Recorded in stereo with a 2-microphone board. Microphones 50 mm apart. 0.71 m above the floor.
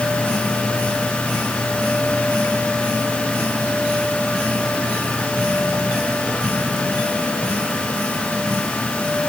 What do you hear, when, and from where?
Only background noise.